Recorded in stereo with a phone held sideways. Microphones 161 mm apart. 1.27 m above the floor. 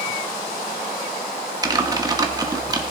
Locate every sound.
1.6 s typing on a keyboard: 25° right (ahead or behind), 1.1 m